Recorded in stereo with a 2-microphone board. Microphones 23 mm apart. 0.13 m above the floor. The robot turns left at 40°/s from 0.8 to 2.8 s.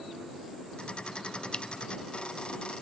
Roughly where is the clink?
Left.